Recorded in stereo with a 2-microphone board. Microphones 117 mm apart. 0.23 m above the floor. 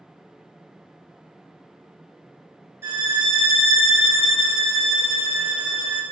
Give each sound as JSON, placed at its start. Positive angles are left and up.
{"t": 2.8, "sound": "a violin", "side_deg": -20, "distance_m": 1.9}